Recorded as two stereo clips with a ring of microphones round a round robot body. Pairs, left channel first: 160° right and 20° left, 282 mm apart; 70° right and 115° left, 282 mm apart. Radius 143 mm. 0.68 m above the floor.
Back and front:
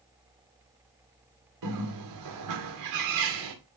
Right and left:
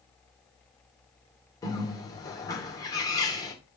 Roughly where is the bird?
Ahead.